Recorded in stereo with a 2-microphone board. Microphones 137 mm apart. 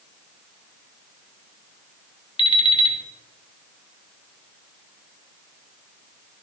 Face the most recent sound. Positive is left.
turn(degrees=35)  # may be behind; listen again after turning